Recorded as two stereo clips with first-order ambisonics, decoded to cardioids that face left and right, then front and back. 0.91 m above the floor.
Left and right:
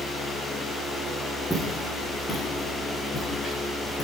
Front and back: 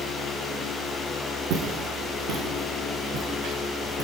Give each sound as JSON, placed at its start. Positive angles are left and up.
{"t": 1.5, "sound": "footsteps", "azimuth_deg": 175, "distance_m": 4.5}